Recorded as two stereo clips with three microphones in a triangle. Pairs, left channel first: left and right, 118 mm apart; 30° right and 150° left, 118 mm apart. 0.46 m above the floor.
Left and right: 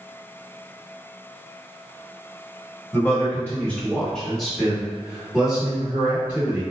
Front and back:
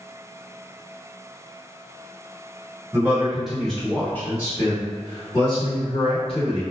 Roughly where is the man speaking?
Left.